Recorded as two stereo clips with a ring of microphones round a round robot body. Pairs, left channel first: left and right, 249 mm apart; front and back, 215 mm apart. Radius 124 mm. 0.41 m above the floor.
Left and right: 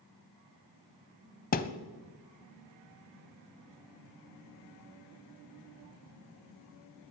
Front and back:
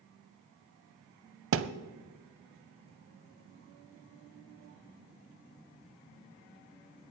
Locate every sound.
1.5 s a thud: 150° left, 0.7 m